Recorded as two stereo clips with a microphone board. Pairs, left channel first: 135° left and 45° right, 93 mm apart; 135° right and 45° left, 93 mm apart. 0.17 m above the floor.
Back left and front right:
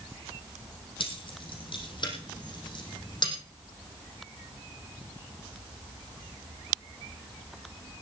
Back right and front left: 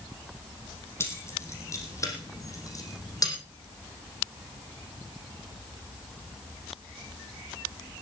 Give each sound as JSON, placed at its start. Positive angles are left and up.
{"t": 1.0, "sound": "keys jangling", "azimuth_deg": 160, "distance_m": 5.0}